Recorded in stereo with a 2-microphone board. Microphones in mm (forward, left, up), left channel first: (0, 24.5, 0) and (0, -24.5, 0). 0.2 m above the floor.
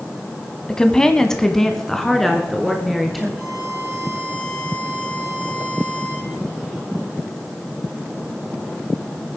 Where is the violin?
15° left (ahead or behind), 5 m.